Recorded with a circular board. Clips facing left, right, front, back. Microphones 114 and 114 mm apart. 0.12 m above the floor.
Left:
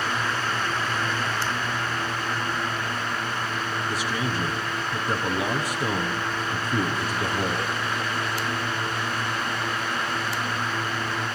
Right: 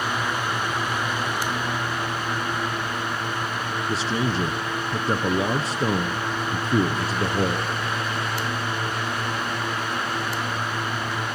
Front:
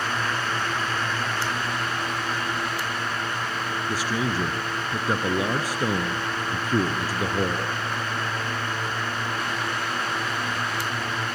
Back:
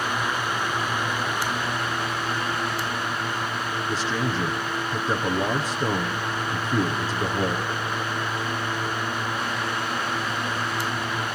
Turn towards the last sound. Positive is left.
turn(degrees=-70)